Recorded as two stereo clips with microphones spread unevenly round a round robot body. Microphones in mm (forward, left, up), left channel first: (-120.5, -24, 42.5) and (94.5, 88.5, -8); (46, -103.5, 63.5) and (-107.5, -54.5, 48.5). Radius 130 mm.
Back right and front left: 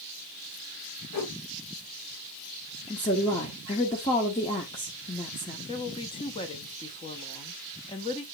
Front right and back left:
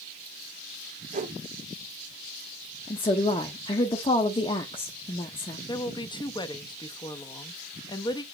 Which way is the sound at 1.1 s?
165° right.